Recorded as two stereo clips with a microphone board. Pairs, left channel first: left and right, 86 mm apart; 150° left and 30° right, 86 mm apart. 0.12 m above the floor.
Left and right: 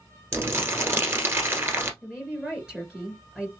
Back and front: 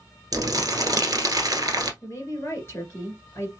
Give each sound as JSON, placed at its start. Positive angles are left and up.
{"t": 0.3, "sound": "crumpling", "azimuth_deg": -45, "distance_m": 1.3}
{"t": 2.0, "sound": "a woman speaking", "azimuth_deg": -170, "distance_m": 2.0}